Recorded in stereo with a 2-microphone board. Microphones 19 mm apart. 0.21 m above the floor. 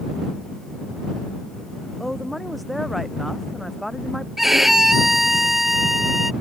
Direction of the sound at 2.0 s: 5° left (ahead or behind).